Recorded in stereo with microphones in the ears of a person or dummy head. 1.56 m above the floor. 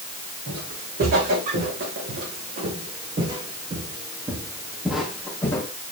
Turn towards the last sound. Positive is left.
turn(degrees=20)  # may be behind; listen again after turning